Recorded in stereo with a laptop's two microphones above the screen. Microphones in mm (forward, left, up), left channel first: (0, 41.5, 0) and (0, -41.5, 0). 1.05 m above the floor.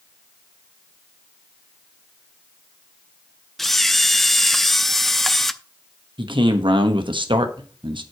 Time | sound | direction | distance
3.6 | a camera shutter | centre (ahead or behind) | 0.5 m
6.2 | a man speaking | 75° right (ahead or behind) | 1.2 m